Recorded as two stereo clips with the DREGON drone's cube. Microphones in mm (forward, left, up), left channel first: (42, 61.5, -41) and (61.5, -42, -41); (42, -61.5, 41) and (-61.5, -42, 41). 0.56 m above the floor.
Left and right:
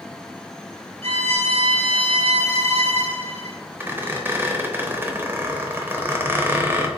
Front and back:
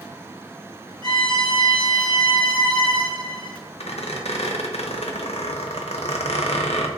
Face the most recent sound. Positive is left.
turn(degrees=-5)